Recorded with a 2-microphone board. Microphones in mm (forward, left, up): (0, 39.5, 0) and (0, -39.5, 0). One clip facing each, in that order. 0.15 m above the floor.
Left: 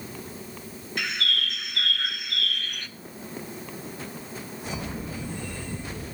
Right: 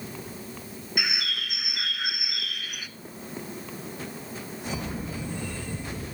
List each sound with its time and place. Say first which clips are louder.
1.0 s a bird: left 2 dB; 10° right (ahead or behind), 0.6 m